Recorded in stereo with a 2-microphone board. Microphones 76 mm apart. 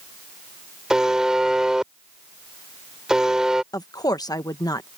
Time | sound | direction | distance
0.9 | a buzzer | 10° right (ahead or behind) | ?
3.7 | a woman speaking | 55° left (ahead or behind) | ?